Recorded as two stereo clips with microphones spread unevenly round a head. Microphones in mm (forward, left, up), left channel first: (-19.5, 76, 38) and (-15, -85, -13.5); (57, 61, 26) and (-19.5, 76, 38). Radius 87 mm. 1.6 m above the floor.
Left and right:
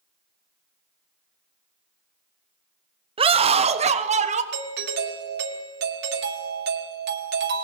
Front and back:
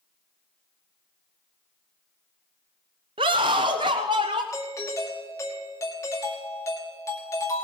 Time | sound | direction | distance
3.2 | a scream | 145° right | 0.9 m
4.5 | a doorbell | 75° right | 1.8 m